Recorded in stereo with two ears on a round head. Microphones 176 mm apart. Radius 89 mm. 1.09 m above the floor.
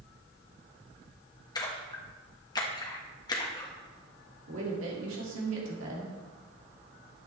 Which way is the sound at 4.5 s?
80° right.